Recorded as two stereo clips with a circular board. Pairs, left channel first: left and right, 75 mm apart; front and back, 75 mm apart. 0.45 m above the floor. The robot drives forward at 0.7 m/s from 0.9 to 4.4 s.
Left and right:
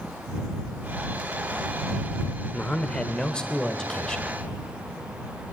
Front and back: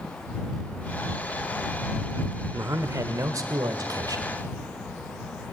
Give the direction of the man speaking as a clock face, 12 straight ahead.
7 o'clock.